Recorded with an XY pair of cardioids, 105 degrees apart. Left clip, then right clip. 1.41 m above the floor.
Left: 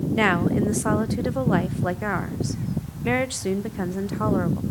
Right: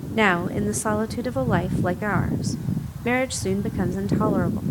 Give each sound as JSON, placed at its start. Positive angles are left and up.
{"t": 0.1, "sound": "a woman speaking", "azimuth_deg": -10, "distance_m": 0.9}